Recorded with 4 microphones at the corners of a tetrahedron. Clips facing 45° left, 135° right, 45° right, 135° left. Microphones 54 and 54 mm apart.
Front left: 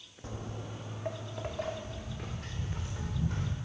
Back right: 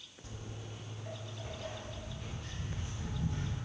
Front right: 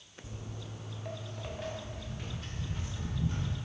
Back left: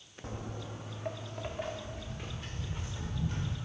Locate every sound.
0.2 s footsteps: 95° left, 0.6 m; by 3.5 s 50° left, 2.5 m